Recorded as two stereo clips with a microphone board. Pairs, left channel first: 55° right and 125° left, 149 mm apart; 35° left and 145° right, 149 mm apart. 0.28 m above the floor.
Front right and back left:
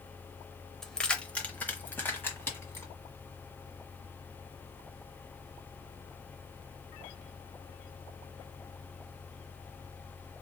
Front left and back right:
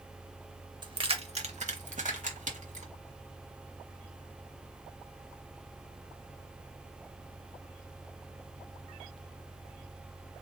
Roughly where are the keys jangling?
Behind right.